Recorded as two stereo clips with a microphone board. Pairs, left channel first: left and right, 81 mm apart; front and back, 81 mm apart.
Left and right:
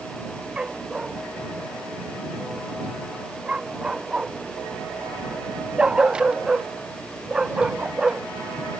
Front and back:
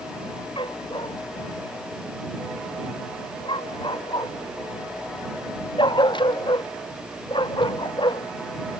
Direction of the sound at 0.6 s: 10° right.